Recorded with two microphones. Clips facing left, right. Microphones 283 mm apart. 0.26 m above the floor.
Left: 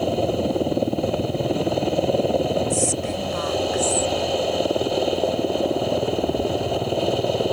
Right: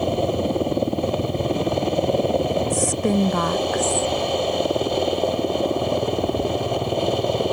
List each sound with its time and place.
0.0 s a helicopter: centre (ahead or behind)
2.7 s a woman speaking: 75° right (ahead or behind)